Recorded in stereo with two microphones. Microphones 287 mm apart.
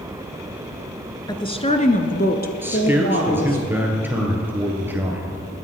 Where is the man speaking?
5° right (ahead or behind), 2.5 m.